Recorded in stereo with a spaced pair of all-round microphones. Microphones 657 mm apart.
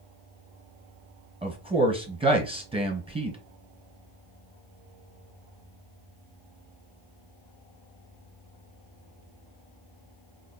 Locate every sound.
1.4 s a man speaking: 10° right (ahead or behind), 1.2 m